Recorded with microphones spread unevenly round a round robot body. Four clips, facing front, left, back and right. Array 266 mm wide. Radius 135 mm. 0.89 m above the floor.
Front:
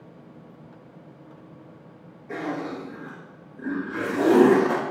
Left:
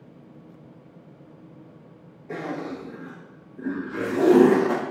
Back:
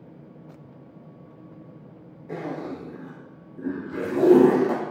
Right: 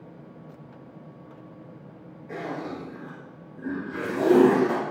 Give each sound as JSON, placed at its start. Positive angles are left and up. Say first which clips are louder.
{"t": 2.3, "sound": "a zipper", "louder": "left 2 dB, front 2 dB", "azimuth_deg": 160, "distance_m": 4.5}